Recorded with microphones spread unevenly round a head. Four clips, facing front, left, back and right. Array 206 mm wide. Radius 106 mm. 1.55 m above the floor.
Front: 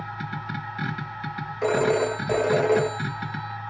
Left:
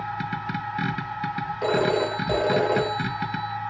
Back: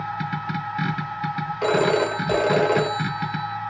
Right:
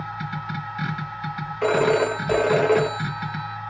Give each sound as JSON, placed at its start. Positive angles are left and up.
{"t": 0.0, "sound": "a machine running", "azimuth_deg": 130, "distance_m": 2.0}
{"t": 1.6, "sound": "a phone ringing", "azimuth_deg": -90, "distance_m": 0.6}